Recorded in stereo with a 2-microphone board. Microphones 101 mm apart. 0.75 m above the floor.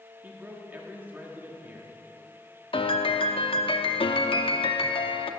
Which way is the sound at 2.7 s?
65° left (ahead or behind).